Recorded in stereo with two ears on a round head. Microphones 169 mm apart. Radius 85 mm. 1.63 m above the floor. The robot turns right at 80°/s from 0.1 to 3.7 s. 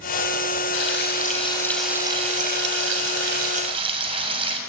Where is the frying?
95° left, 6.5 m; by 4.6 s 30° right, 6.5 m.